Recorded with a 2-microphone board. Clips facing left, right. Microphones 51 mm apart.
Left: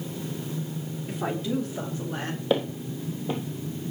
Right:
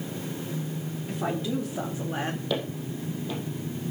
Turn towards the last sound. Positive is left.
turn(degrees=30)  # may be behind; listen again after turning